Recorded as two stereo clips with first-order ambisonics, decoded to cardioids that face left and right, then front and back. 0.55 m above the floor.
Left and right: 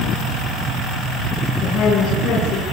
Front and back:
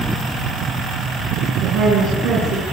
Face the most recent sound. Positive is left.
turn(degrees=150)